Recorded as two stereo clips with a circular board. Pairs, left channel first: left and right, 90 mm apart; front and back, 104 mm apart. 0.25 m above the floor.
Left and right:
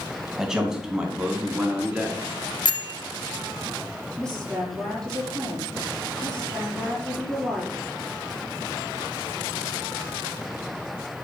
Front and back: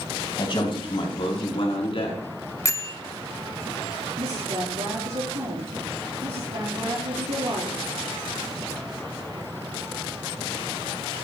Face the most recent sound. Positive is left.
turn(degrees=175)